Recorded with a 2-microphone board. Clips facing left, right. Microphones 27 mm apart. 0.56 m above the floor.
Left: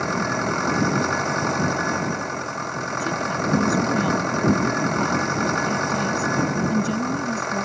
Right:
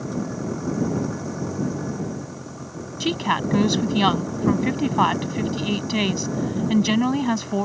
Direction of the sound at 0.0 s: 80° left.